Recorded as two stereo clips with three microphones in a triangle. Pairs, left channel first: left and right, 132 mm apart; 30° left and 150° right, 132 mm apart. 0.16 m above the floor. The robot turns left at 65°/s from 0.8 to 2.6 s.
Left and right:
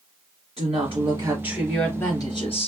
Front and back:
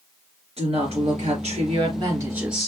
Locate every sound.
0.6 s a woman speaking: 120° right, 2.5 m; by 2.7 s 120° left, 2.5 m